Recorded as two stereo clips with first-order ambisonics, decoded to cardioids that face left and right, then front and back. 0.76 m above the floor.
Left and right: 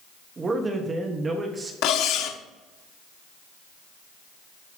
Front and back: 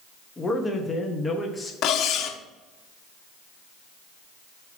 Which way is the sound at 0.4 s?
55° right.